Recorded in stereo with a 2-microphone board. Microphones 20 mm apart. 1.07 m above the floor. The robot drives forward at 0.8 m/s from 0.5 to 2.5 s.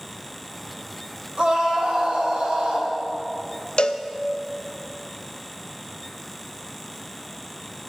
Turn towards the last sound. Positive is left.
turn(degrees=70)  # may be behind; listen again after turning